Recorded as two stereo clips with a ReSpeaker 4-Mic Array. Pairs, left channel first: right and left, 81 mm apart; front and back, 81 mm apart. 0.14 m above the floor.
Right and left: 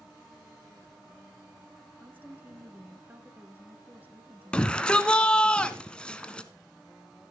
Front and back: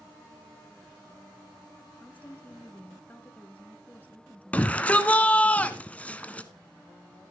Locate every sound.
2.0 s a woman speaking: 50° left, 1.4 m
4.5 s a shout: 35° right, 1.2 m